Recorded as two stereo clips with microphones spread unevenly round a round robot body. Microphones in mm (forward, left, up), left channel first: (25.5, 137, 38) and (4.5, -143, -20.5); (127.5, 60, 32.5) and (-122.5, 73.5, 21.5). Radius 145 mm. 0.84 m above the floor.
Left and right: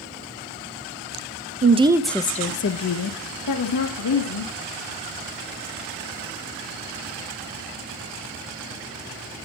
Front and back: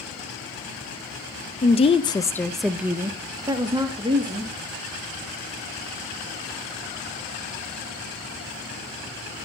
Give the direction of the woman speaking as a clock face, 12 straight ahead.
2 o'clock.